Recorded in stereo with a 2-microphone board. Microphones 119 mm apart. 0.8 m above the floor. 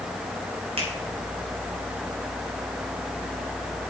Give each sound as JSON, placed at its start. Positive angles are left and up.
{"t": 0.8, "sound": "a finger snap", "side_deg": -55, "distance_m": 3.5}